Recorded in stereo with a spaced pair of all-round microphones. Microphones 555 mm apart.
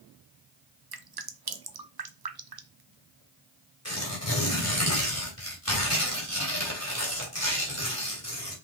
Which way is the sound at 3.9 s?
25° left (ahead or behind).